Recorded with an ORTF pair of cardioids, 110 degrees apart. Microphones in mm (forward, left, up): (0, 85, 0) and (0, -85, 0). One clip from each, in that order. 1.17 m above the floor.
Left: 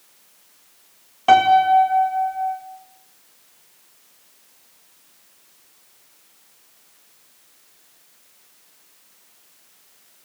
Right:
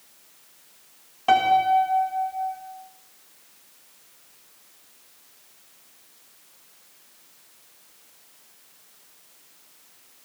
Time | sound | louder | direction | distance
1.3 | a piano | left 5 dB | 30° left | 4 m